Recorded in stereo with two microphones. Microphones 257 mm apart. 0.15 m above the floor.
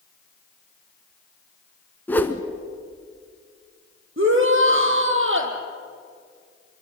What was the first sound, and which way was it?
A whoosh, 5° left (ahead or behind).